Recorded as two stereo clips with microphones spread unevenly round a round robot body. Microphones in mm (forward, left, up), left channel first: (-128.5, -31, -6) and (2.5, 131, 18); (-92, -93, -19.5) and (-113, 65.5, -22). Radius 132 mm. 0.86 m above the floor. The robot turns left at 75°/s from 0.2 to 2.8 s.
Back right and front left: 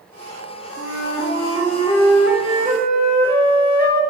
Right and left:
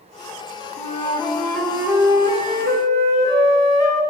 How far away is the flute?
About 3 m.